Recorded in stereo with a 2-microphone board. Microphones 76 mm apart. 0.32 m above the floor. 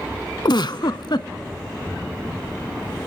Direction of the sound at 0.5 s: 65° left (ahead or behind).